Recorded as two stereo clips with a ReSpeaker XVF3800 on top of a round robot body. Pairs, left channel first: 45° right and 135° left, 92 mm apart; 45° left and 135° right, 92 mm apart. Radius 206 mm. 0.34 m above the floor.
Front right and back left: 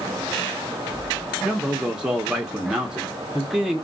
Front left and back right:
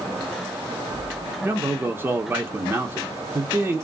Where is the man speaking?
155° right, 1.0 m.